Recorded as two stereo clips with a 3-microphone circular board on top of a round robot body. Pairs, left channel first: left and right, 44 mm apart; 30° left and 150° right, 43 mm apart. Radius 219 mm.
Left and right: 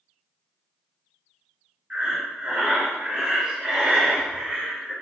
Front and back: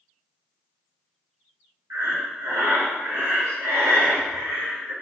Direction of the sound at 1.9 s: 160° right.